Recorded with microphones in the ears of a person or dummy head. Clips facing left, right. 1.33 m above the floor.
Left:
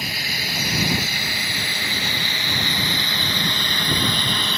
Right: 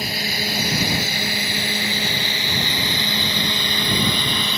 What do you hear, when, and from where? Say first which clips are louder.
0.0 s a drone: right 5 dB; 30° right (ahead or behind); by 4.6 s 5° right (ahead or behind)